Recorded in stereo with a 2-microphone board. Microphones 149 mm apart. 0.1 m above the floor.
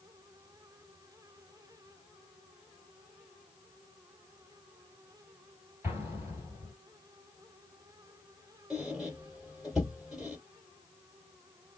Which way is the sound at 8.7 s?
Centre (ahead or behind).